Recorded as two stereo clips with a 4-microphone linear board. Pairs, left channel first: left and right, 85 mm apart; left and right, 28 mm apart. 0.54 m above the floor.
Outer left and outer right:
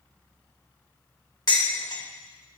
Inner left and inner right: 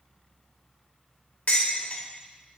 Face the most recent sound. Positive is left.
turn(degrees=55)  # may be behind; listen again after turning